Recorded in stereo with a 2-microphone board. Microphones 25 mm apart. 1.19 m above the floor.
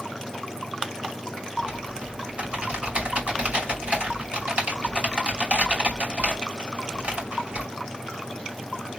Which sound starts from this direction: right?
Typing on a keyboard, at 1.6 s.